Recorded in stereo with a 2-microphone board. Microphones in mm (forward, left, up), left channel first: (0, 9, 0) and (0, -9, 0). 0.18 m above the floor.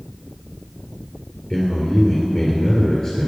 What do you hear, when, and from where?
1.5 s a man speaking: 35° left (ahead or behind), 3 m